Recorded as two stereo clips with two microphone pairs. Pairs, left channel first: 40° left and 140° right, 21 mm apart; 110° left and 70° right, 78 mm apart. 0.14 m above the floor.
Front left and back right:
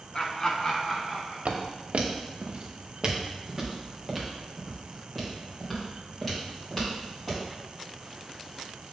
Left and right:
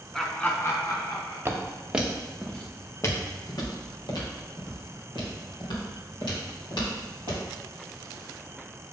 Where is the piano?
I don't hear a piano.